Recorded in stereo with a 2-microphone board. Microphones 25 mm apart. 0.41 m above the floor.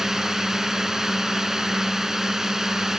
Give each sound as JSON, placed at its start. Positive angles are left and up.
{"t": 0.0, "sound": "a drone", "side_deg": -20}